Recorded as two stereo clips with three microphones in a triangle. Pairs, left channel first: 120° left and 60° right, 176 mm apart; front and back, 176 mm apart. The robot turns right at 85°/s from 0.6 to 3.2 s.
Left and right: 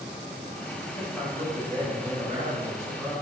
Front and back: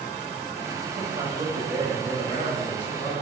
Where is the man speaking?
Straight behind, 1.1 m; by 3.1 s 10° left, 1.1 m.